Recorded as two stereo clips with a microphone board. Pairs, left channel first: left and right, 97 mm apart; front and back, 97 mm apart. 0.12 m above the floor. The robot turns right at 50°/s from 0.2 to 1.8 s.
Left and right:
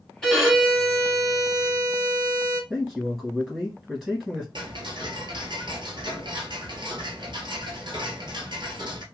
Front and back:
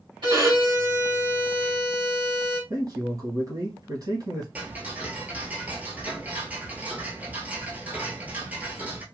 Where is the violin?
175° left, 2 m; by 2.6 s 110° right, 2 m.